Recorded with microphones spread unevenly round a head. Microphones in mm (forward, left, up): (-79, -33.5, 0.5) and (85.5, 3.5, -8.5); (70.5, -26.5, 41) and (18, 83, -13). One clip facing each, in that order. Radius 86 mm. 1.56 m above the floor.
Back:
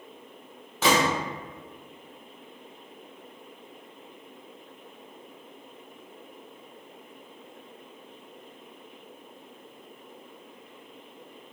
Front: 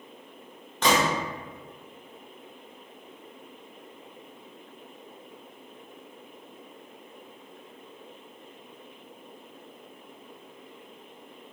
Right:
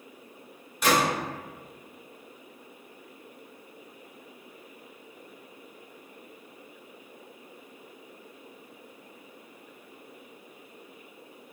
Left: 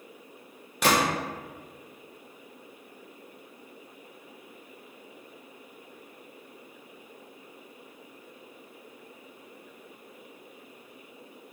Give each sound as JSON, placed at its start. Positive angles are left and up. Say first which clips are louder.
{"t": 0.8, "sound": "a gunshot", "louder": "back 1 dB, even", "azimuth_deg": 115, "distance_m": 0.7}